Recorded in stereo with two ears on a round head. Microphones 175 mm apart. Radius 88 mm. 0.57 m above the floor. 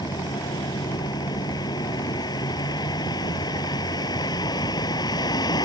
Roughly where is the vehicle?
Left.